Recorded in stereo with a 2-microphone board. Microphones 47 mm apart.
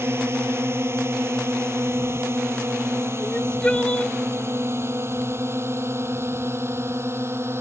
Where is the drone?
60° right (ahead or behind); by 7.6 s 65° right (ahead or behind).